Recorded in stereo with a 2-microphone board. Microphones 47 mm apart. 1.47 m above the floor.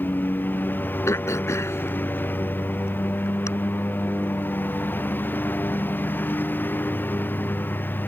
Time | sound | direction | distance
0.0 | a lawn mower | 45° left (ahead or behind) | ?
1.1 | throat clearing | 90° left | ?